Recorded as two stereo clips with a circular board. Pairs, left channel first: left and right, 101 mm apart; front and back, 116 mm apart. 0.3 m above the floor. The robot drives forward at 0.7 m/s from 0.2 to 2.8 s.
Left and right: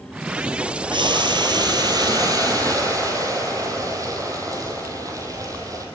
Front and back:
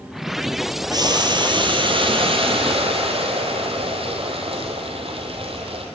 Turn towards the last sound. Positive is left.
turn(degrees=-145)